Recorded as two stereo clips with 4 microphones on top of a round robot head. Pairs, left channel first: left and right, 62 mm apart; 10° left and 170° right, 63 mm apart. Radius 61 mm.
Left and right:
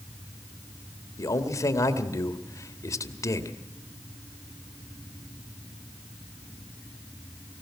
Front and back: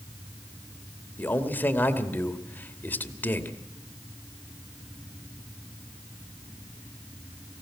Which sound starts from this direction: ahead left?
A man speaking, at 1.2 s.